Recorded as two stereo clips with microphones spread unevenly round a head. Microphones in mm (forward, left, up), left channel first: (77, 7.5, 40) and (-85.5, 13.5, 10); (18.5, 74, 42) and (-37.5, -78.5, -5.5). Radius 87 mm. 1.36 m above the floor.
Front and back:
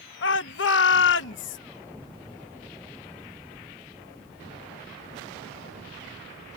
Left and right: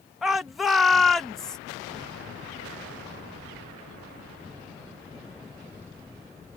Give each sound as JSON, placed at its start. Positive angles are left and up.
{"t": 0.2, "sound": "a shout", "azimuth_deg": -25}